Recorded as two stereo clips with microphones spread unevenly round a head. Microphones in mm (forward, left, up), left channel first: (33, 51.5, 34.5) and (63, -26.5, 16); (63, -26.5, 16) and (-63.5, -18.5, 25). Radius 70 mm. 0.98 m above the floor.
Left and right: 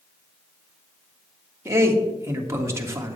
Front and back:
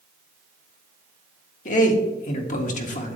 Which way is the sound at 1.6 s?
15° right.